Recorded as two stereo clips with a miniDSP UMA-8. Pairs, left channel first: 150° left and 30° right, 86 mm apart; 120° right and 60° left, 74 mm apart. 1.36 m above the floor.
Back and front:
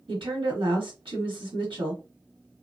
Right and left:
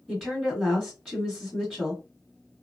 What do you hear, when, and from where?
0.1 s a woman speaking: 20° right, 1.4 m